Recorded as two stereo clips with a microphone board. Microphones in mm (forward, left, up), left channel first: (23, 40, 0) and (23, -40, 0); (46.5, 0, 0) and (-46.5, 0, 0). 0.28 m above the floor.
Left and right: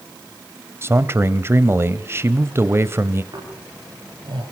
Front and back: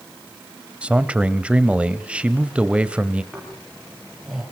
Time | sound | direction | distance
0.8 | a man speaking | 110° right | 1.1 m
3.3 | snoring | 95° right | 6.5 m